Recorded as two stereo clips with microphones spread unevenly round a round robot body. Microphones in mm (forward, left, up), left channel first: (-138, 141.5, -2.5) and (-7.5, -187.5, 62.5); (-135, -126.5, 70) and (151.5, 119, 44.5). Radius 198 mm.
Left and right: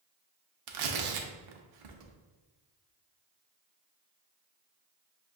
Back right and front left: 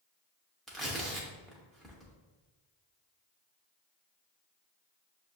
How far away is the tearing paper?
About 0.5 m.